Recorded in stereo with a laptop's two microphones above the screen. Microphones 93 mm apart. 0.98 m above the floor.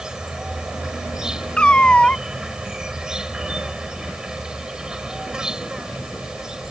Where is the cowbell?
No cowbell in this recording.